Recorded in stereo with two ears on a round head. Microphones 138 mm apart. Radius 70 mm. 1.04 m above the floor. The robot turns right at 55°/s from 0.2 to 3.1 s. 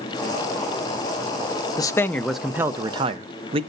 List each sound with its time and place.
1.8 s a man speaking: 150° left, 0.6 m; by 3.6 s 135° right, 0.6 m